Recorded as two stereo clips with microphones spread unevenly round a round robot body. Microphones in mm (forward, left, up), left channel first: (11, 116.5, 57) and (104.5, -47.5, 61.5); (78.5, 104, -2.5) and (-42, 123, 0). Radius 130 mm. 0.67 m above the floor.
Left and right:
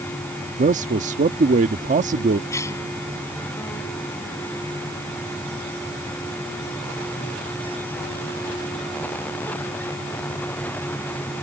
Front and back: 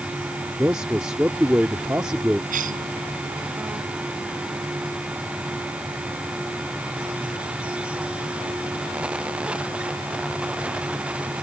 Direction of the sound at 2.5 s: 160° right.